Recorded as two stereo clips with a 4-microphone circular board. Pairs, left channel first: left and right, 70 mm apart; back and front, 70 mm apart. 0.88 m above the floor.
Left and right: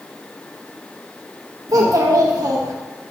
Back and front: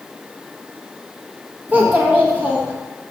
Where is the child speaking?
60° right, 0.9 m.